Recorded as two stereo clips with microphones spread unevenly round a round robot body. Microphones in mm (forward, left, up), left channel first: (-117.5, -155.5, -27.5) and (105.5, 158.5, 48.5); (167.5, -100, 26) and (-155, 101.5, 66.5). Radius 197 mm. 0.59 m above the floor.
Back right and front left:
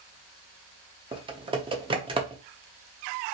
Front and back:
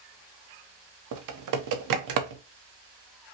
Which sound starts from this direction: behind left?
Typing on a keyboard, at 1.1 s.